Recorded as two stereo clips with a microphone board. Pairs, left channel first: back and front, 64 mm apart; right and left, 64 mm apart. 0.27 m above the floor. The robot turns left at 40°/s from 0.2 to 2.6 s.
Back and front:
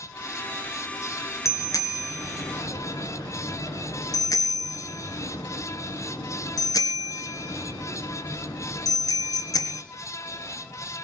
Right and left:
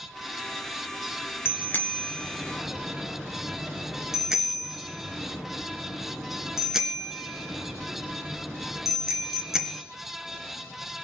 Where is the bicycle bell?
145° right, 2.5 m; by 9.8 s 170° left, 2.5 m.